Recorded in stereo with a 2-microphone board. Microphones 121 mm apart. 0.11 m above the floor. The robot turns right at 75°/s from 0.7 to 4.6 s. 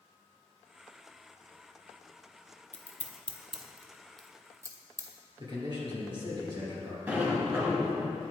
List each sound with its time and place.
2.7 s scissors: 65° left (ahead or behind), 0.6 m; by 5.1 s 25° right (ahead or behind), 0.6 m
5.4 s a man speaking: 40° right (ahead or behind), 1.9 m
7.1 s a sliding door: 15° right (ahead or behind), 1.4 m